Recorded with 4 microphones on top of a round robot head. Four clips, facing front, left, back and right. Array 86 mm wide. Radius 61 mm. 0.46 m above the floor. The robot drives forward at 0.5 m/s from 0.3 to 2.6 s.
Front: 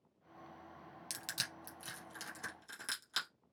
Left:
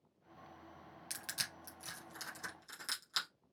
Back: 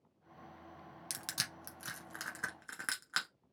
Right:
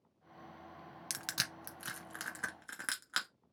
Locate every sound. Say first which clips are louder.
1.1 s crushing: right 5 dB, back 1 dB; 100° right, 0.8 m; by 3.3 s 140° right, 1.2 m